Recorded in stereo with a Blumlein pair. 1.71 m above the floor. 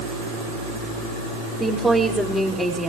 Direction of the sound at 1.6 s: 5° right.